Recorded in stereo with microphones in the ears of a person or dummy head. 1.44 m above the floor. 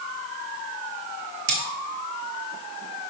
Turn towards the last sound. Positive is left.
turn(degrees=-60)  # may be behind; listen again after turning